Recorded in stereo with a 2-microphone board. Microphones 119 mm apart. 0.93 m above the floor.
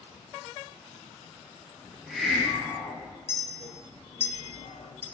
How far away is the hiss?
About 0.8 m.